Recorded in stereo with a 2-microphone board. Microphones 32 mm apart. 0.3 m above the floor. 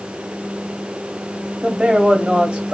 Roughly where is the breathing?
I don't hear breathing.